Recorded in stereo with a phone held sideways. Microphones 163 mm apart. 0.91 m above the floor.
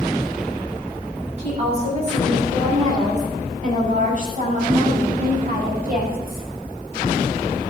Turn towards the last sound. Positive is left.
turn(degrees=-65)  # may be behind; listen again after turning